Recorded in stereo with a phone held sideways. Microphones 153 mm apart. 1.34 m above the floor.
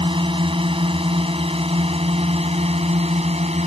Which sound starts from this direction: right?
A drone, at 0.0 s.